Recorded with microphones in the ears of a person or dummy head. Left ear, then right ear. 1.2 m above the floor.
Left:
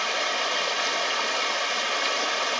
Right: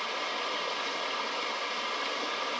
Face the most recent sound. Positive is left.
turn(degrees=30)  # may be behind; listen again after turning